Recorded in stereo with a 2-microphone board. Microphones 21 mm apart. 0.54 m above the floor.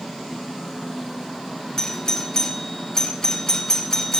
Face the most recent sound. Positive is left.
turn(degrees=25)  # may be behind; listen again after turning